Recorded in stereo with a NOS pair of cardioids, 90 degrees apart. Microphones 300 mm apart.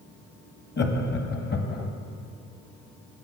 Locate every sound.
0.8 s laughter: 35° left, 1.1 m